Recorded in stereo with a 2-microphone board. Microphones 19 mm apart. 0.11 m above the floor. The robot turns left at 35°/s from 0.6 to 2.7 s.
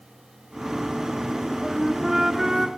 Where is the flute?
10° right (ahead or behind), 1.2 m; by 2.7 s 20° right (ahead or behind), 1.2 m.